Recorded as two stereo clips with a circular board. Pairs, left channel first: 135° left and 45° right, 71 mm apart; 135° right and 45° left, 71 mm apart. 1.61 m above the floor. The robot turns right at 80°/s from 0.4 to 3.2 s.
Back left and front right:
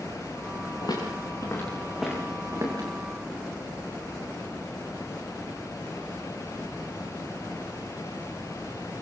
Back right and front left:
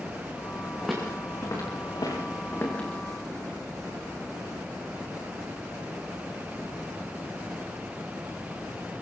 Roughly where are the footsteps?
Behind left.